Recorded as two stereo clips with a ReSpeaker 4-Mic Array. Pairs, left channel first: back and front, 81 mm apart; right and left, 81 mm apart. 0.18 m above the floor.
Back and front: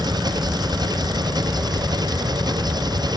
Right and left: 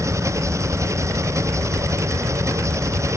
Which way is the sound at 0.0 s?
35° left.